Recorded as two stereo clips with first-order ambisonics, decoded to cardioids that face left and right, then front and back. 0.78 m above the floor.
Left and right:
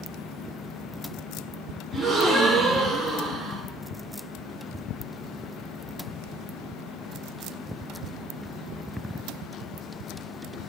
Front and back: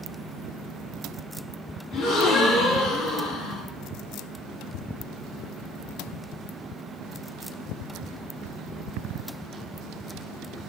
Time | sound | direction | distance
1.9 | a gasp | 10° left | 4 m